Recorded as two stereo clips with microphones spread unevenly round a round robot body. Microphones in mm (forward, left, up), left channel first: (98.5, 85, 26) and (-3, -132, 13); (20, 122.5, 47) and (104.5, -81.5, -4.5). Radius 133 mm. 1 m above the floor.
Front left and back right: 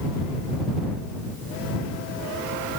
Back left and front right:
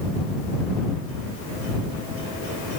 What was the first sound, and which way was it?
Only background noise.